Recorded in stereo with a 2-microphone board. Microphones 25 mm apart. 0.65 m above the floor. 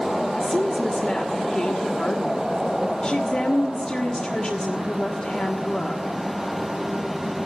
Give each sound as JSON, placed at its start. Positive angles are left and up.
{"t": 0.4, "sound": "a woman speaking", "side_deg": 40, "distance_m": 1.5}